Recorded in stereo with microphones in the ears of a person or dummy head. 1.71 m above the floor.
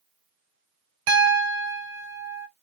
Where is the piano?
75° right (ahead or behind), 0.9 m.